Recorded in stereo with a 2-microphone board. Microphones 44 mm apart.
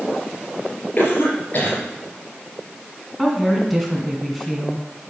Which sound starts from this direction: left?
A cough, at 1.0 s.